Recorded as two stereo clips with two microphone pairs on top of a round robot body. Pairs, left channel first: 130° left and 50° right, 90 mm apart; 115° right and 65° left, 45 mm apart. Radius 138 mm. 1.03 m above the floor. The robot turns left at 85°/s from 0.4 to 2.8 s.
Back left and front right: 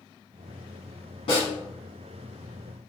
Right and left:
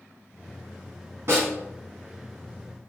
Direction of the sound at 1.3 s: 100° left.